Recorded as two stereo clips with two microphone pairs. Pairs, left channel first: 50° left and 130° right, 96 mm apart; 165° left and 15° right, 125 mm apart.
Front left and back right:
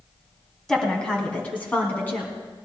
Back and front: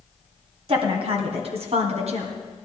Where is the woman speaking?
35° right, 2 m; by 2.3 s 15° right, 2.5 m.